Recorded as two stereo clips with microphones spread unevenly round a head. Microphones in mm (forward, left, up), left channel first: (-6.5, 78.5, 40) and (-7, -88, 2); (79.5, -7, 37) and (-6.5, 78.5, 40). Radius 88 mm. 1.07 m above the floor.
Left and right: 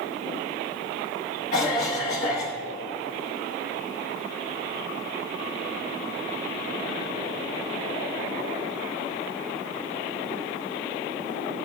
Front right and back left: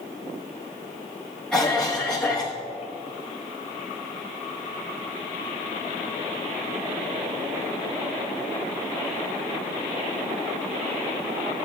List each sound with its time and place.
1.5 s a cough: 40° left, 1.1 m